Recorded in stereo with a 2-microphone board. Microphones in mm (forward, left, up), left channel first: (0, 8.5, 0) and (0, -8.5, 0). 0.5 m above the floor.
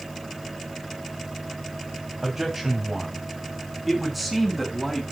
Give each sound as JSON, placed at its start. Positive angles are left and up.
{"t": 2.2, "sound": "a man speaking", "side_deg": -20, "distance_m": 3.5}